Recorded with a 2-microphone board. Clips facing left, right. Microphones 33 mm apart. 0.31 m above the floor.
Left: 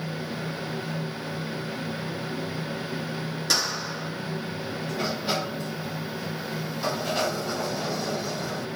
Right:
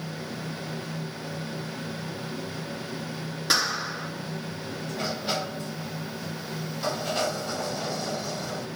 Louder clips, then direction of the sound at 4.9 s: Left 2 dB; centre (ahead or behind).